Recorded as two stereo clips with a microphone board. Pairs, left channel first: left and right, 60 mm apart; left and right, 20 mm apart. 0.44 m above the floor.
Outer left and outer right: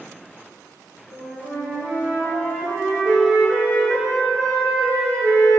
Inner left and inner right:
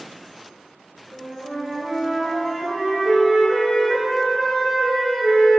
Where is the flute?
10° left (ahead or behind), 1.4 m.